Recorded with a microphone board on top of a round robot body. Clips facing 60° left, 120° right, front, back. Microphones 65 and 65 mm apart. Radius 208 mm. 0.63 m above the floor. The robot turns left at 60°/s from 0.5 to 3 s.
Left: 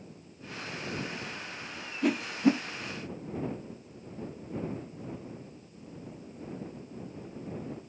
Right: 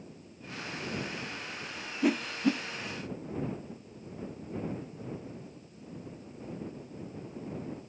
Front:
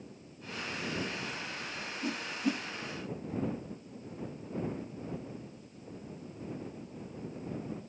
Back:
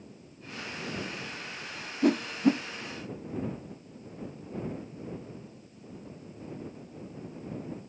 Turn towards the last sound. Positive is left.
turn(degrees=95)